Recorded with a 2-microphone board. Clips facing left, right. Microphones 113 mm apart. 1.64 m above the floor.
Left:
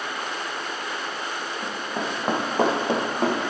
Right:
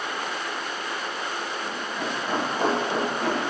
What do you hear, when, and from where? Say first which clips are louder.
1.6 s running footsteps: left 1 dB; 50° left (ahead or behind), 4.5 m